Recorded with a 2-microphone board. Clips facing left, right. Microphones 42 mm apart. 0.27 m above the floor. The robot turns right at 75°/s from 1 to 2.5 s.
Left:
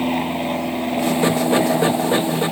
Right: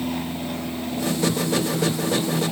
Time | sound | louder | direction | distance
0.0 | an aircraft | left 7 dB | 40° left | ?